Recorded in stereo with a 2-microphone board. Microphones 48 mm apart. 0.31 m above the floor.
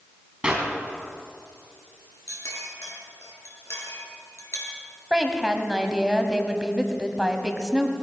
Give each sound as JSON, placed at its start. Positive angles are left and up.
{"t": 0.4, "sound": "a clap", "side_deg": -20, "distance_m": 2.5}
{"t": 2.3, "sound": "a clink", "side_deg": 75, "distance_m": 3.0}
{"t": 5.1, "sound": "a woman speaking", "side_deg": -10, "distance_m": 1.5}